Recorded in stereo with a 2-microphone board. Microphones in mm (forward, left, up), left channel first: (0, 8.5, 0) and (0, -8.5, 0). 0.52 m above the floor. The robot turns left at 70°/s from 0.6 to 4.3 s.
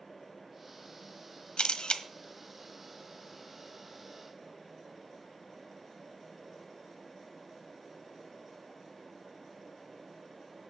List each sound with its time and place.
1.6 s a camera shutter: 85° left, 1.3 m; by 2.0 s 55° left (ahead or behind), 1.3 m